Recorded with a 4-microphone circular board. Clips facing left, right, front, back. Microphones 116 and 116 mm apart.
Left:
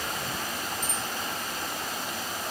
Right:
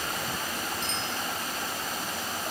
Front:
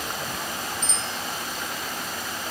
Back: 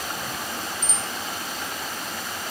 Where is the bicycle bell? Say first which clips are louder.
Even, even; 95° right.